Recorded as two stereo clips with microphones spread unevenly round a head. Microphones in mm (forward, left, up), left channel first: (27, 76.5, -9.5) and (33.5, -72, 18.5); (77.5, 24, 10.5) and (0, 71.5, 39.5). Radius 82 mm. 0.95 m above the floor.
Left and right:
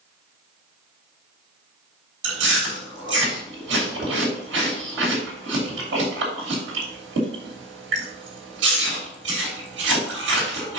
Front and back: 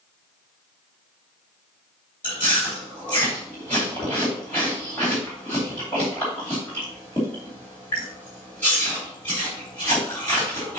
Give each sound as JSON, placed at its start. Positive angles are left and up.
{"t": 2.2, "sound": "chewing", "azimuth_deg": -100, "distance_m": 3.0}